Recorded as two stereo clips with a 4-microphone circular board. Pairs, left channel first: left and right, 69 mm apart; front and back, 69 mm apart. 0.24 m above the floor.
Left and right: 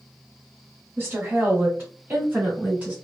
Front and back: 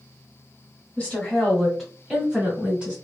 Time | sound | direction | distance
1.0 | a woman speaking | 60° right | 1.9 m